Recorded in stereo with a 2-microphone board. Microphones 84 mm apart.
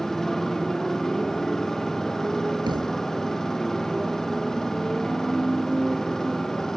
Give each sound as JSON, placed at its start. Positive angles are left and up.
{"t": 0.0, "sound": "a motorcycle", "side_deg": 5}
{"t": 2.7, "sound": "a thud", "side_deg": -60}